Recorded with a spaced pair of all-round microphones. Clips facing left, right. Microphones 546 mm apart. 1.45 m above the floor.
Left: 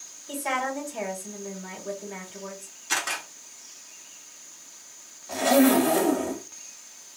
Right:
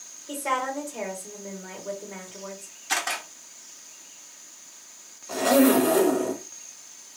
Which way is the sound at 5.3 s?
10° left (ahead or behind).